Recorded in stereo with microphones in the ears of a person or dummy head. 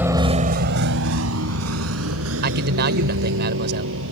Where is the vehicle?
5° right (ahead or behind); by 4.1 s 75° right (ahead or behind).